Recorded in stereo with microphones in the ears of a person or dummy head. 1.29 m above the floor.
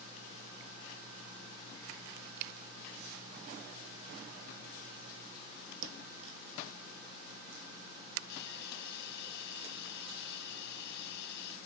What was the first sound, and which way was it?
A thud, 75° right (ahead or behind).